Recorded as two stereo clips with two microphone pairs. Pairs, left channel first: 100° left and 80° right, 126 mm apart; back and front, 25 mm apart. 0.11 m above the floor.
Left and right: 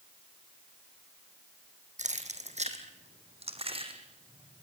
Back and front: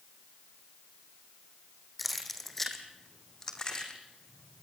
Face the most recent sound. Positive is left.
turn(degrees=-130)